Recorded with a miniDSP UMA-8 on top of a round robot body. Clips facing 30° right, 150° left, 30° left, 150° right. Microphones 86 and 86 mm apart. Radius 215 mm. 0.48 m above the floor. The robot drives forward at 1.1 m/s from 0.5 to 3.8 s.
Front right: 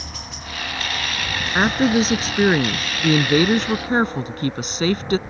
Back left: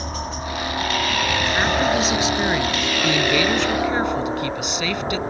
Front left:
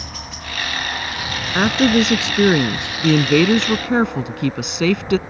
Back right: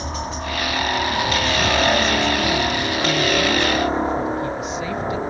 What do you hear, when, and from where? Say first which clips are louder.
0.0 s a helicopter: back left 8 dB, back right 7 dB; 175° left
1.6 s a woman speaking: front right 4 dB, front left 6 dB; 15° left; by 5.2 s 20° left